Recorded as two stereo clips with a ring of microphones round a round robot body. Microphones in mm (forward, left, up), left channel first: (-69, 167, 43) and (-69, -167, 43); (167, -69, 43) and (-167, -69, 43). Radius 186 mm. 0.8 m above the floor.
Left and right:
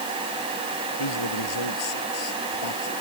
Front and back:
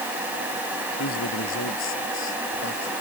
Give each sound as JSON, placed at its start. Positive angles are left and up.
{"t": 1.0, "sound": "a man speaking", "azimuth_deg": 55}